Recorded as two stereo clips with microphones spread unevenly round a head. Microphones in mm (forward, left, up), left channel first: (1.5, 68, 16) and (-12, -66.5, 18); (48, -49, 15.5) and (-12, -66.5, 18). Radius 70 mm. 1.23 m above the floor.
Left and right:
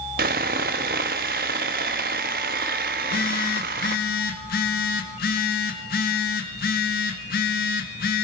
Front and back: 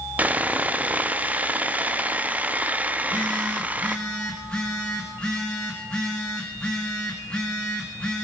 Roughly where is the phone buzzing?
Left.